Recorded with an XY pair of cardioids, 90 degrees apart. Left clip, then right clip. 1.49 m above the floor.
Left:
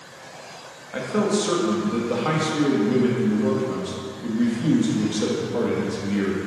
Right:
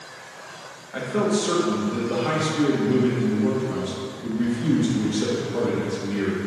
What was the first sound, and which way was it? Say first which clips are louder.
A man speaking: left 1 dB; 30° left.